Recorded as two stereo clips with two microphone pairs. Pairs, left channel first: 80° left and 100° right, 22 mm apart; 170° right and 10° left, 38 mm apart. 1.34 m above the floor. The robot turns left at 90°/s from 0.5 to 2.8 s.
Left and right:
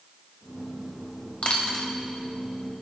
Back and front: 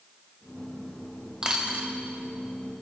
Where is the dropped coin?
70° left, 1.5 m; by 1.9 s 25° left, 1.5 m.